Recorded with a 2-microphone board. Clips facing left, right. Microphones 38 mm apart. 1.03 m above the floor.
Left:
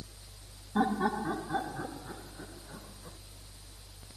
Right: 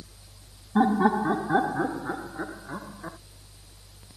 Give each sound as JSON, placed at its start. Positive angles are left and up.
{"t": 0.8, "sound": "laughter", "side_deg": -20}